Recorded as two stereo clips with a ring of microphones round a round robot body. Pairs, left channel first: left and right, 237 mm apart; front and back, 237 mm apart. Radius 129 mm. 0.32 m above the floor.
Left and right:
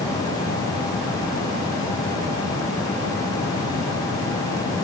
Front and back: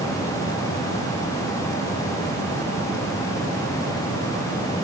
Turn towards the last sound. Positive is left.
No sound to turn to.